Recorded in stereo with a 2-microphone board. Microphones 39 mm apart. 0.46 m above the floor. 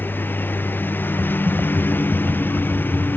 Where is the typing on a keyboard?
50° right (ahead or behind).